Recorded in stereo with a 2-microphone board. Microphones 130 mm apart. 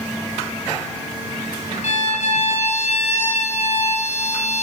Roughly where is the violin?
Left.